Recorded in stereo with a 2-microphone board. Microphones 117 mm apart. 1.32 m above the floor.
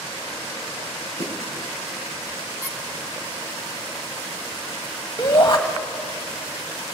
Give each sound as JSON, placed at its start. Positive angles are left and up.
{"t": 1.2, "sound": "a snare drum", "side_deg": -65, "distance_m": 5.5}
{"t": 2.6, "sound": "a squeak", "side_deg": -20, "distance_m": 3.0}
{"t": 5.2, "sound": "a shout", "side_deg": 40, "distance_m": 1.4}